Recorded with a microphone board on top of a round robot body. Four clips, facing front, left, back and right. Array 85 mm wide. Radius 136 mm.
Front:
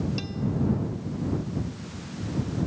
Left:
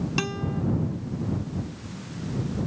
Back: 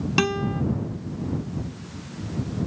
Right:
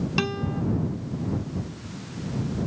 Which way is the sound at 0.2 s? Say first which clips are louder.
Right 3 dB, back 6 dB; 170° right.